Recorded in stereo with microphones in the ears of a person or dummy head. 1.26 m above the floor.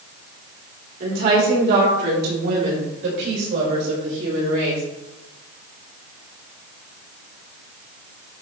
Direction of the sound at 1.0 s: 60° right (ahead or behind).